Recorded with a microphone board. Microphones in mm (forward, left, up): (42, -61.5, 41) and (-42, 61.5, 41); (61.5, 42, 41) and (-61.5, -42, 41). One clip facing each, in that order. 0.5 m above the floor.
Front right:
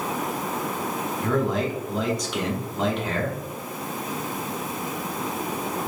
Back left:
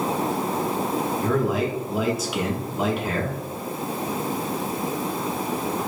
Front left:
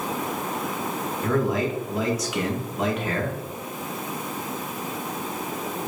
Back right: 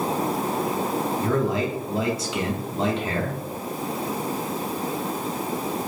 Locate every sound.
1.2 s a man speaking: 160° right, 0.9 m